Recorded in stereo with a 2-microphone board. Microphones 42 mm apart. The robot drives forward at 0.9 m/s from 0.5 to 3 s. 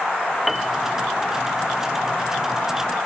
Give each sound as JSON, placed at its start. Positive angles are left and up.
{"t": 0.5, "sound": "a piano", "side_deg": 0}